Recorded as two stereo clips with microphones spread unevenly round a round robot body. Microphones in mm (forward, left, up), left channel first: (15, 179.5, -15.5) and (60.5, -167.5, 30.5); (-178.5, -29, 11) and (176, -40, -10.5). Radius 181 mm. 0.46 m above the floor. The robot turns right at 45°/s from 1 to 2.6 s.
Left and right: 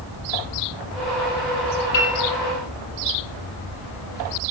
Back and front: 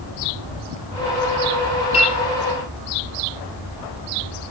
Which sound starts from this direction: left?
A piano, at 1.9 s.